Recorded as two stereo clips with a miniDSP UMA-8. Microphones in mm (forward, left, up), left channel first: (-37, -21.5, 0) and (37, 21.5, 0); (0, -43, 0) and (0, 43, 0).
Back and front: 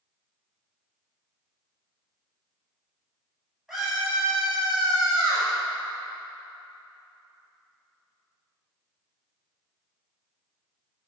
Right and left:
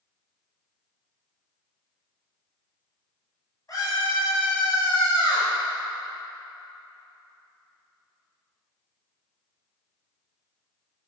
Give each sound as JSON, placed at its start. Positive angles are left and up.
{"t": 3.7, "sound": "a scream", "azimuth_deg": -55, "distance_m": 2.5}